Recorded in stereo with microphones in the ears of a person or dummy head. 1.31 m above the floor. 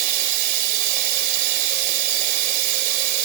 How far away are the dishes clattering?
I don't hear dishes clattering.